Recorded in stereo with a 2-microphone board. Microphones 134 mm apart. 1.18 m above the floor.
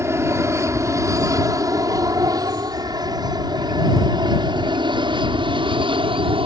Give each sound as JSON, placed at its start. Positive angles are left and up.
{"t": 0.0, "sound": "an aircraft", "side_deg": -20}